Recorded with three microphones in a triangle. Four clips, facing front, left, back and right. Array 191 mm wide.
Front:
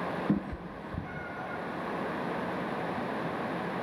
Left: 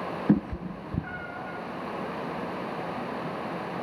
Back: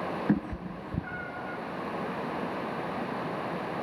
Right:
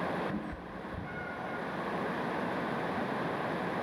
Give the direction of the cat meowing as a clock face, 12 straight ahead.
9 o'clock.